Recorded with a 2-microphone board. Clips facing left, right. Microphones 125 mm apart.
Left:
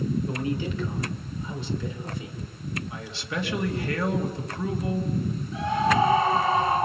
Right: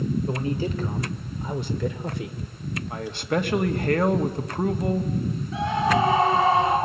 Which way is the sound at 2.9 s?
50° right (ahead or behind).